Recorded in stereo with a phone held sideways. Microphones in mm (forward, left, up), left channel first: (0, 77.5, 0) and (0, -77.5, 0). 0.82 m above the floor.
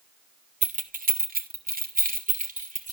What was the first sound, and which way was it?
Keys jangling, 50° right (ahead or behind).